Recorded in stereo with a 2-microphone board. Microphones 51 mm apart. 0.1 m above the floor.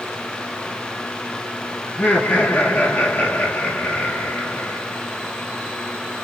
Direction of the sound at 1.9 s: 30° left (ahead or behind).